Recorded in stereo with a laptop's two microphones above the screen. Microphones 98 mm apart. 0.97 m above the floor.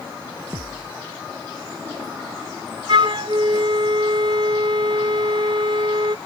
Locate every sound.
0.5 s a thud: 30° right (ahead or behind)
2.9 s a flute: 60° right (ahead or behind)